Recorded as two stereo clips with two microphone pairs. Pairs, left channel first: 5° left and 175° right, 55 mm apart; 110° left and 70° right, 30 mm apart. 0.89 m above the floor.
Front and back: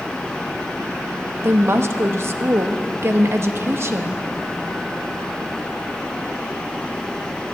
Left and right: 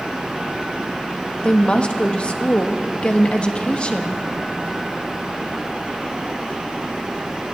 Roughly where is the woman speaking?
Behind left.